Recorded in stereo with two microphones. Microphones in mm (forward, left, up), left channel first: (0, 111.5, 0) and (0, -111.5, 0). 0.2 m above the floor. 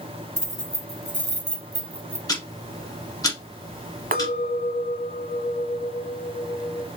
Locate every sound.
0.4 s keys jangling: 30° right (ahead or behind), 0.8 m
2.3 s ticking: 15° left (ahead or behind), 1.2 m
4.1 s a clink: 40° right (ahead or behind), 0.7 m